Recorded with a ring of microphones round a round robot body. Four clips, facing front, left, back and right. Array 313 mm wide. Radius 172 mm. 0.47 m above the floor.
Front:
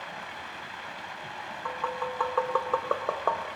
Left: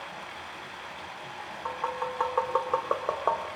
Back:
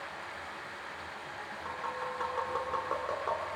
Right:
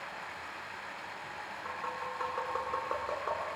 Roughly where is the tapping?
Ahead left.